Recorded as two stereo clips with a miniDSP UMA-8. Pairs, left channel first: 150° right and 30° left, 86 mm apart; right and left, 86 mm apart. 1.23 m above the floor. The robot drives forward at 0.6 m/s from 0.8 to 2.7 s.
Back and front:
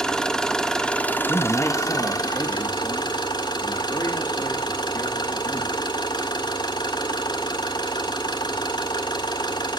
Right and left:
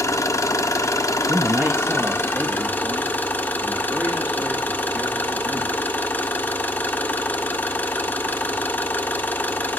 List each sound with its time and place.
0.0 s an engine running: 75° right, 0.9 m; by 9.8 s 155° right, 1.3 m
1.3 s a man speaking: 145° left, 1.1 m; by 5.8 s 160° left, 1.9 m